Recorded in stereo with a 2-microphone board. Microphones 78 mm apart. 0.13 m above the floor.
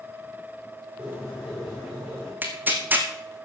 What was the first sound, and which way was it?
A bird, 5° right (ahead or behind).